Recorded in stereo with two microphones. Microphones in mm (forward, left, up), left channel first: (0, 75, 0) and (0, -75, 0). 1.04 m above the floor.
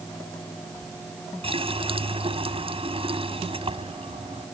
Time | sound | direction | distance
1.4 | a running tap | 40° right (ahead or behind) | ?